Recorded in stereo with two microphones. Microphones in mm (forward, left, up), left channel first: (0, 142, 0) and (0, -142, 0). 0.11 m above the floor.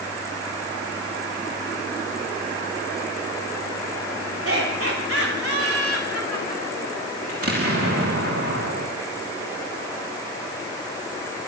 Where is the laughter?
55° right (ahead or behind), 9.5 m; by 7.0 s 60° right (ahead or behind), 9.5 m.